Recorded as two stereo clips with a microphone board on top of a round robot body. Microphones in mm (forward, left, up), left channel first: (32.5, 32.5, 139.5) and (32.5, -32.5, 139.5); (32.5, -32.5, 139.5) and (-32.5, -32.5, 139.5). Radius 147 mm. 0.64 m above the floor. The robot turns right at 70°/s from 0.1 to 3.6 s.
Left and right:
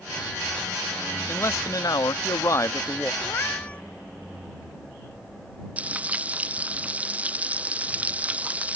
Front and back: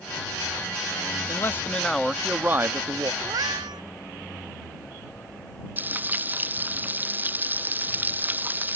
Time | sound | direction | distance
1.3 | a man speaking | 35° left | ?
3.2 | a cat meowing | 140° left | ?
5.8 | frying | 140° right | ?